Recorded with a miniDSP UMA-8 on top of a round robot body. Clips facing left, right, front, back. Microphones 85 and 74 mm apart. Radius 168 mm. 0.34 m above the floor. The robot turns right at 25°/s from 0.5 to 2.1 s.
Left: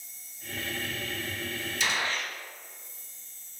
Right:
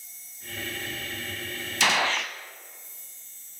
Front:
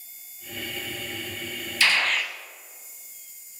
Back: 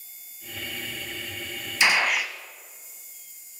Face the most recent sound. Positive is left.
turn(degrees=-100)